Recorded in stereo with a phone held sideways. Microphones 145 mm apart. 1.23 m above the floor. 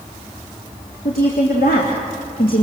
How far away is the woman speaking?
About 3.5 m.